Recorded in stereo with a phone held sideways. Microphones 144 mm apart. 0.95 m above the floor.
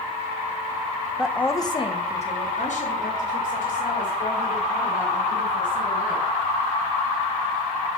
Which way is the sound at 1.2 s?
10° right (ahead or behind).